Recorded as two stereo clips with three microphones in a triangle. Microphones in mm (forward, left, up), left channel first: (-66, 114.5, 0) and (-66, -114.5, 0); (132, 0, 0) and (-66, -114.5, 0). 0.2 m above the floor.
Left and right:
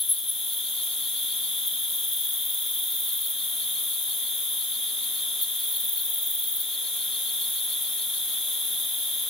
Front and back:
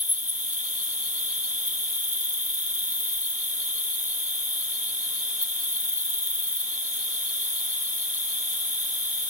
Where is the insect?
155° left.